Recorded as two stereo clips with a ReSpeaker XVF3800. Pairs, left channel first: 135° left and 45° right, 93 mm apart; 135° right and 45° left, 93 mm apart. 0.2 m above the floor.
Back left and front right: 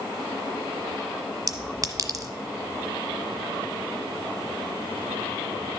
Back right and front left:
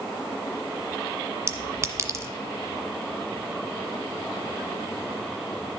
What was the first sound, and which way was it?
A clink, 10° right.